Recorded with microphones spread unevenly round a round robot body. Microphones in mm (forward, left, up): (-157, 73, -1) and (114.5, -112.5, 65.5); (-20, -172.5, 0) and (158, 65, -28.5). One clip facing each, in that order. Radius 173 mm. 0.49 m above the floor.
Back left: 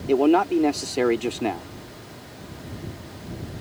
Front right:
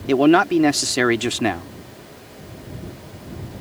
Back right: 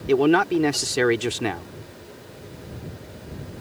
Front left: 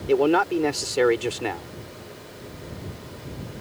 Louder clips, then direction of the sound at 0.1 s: Front right 3 dB, back right 2 dB; 80° right.